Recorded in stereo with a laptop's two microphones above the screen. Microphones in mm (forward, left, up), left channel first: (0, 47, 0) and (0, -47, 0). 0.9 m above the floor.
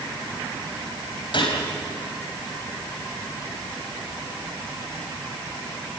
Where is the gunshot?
55° left (ahead or behind), 3.5 m.